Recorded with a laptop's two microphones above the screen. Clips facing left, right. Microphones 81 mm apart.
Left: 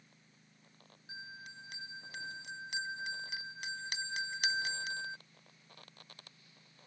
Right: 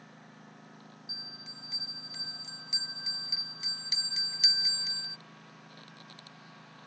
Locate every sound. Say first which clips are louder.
0.0 s a lawn mower: right 14 dB; 70° right (ahead or behind)
1.1 s a bell: left 1 dB; 50° left (ahead or behind)